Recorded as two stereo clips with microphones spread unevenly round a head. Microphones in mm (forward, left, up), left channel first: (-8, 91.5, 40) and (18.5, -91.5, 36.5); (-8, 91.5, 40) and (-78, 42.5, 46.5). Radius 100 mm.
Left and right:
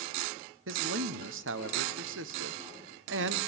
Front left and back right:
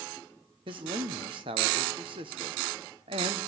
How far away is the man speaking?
About 1.2 m.